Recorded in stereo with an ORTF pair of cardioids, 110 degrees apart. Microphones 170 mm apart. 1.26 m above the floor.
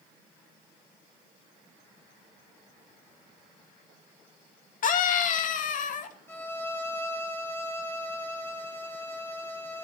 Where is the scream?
50° left, 2 m.